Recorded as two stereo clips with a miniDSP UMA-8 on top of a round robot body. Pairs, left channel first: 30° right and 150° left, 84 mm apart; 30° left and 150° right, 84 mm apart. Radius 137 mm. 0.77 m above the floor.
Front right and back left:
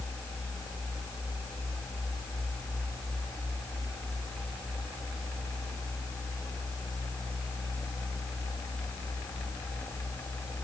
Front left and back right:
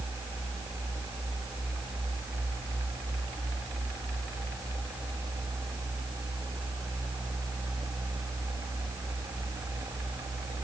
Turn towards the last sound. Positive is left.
No sound to turn to.